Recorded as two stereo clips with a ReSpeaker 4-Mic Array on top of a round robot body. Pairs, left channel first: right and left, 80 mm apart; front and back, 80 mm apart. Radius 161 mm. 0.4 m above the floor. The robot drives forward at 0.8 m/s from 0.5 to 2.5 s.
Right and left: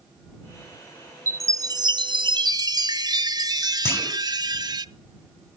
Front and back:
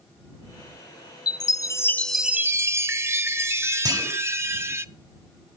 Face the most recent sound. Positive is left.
turn(degrees=-150)